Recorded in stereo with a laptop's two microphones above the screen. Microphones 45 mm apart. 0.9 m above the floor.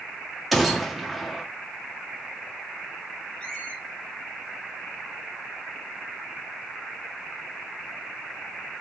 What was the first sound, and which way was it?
A gunshot, centre (ahead or behind).